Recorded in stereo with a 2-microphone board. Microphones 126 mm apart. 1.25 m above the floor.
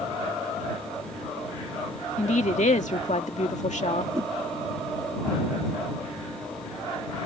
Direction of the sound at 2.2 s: 70° left (ahead or behind).